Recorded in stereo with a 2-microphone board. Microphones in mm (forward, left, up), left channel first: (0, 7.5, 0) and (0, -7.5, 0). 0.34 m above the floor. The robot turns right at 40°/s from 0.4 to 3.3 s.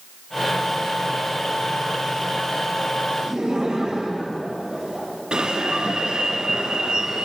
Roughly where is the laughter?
Right.